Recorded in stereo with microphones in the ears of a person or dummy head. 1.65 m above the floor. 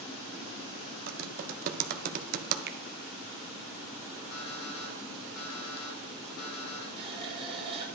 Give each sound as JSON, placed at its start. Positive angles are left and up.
{"t": 1.1, "sound": "typing on a keyboard", "side_deg": -45, "distance_m": 0.9}
{"t": 2.7, "sound": "a finger snap", "side_deg": -45, "distance_m": 0.5}
{"t": 4.3, "sound": "an alarm clock", "side_deg": 75, "distance_m": 3.5}
{"t": 7.0, "sound": "a running tap", "side_deg": -30, "distance_m": 1.7}